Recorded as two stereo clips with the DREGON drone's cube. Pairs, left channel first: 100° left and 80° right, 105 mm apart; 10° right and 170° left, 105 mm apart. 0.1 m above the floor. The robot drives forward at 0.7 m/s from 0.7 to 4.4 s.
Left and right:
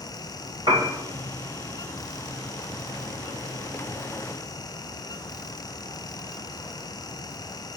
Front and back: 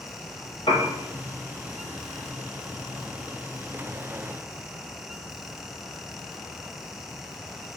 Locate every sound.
0.7 s a piano: 40° right, 2.5 m; by 0.9 s 45° right, 2.5 m